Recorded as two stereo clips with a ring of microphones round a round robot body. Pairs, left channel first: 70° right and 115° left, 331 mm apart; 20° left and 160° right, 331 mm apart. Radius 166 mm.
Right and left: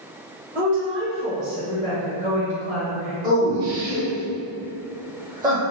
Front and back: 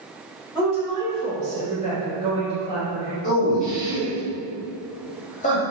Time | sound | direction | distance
0.6 | a woman speaking | 140° left | 1.0 m
3.2 | a man speaking | 55° left | 1.1 m